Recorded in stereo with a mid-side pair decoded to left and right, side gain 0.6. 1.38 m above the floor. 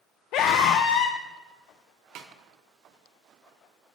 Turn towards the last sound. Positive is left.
turn(degrees=-65)